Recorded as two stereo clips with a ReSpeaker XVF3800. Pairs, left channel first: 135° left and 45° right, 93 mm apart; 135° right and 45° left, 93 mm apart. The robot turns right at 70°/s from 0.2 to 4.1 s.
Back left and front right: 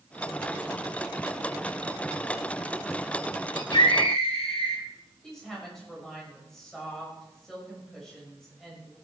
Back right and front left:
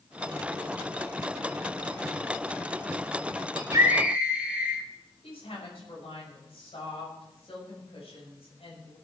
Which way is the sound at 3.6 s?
85° left.